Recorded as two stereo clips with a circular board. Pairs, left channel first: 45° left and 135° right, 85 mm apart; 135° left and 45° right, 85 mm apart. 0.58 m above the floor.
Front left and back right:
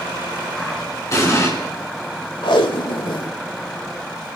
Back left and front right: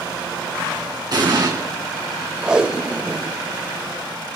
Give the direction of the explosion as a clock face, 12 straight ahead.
12 o'clock.